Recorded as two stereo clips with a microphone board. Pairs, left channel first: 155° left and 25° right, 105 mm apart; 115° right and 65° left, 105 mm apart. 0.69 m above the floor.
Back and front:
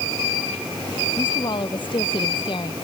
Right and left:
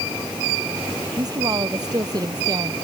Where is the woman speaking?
120° left.